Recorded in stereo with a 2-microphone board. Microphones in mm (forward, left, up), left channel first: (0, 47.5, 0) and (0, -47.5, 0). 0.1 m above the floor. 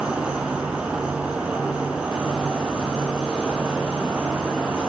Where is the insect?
10° right (ahead or behind), 0.8 m.